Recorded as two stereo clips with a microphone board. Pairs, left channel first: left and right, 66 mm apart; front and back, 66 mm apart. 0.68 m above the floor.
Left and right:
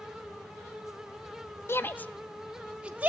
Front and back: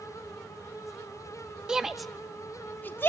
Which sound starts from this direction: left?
A shout, at 1.7 s.